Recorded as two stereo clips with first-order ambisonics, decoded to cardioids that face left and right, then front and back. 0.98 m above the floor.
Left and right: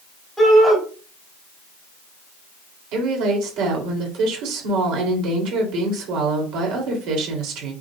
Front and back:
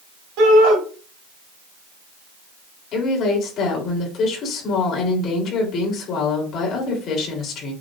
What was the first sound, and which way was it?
A shout, straight behind.